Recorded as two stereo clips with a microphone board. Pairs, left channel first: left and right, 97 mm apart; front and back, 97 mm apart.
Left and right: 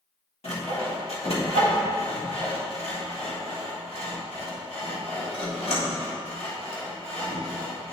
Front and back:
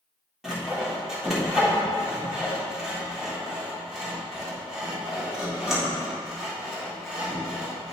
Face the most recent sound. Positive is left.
turn(degrees=95)